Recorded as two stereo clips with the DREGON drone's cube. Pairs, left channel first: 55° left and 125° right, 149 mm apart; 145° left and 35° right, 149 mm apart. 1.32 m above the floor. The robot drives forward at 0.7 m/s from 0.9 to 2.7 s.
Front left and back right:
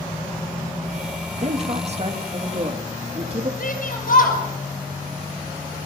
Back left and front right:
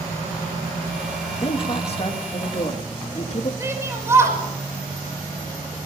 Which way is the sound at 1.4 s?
165° right.